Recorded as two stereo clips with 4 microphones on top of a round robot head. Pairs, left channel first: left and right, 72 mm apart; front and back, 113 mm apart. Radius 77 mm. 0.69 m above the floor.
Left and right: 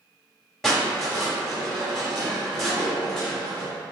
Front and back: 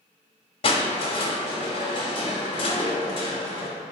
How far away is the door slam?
I don't hear a door slam.